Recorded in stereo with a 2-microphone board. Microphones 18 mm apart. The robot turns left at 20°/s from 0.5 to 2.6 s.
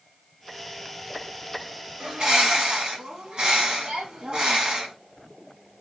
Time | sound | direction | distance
2.0 | a bird | 50° right (ahead or behind) | 1.1 m